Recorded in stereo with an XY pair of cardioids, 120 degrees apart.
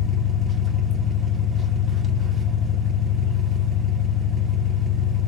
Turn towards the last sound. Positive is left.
turn(degrees=-35)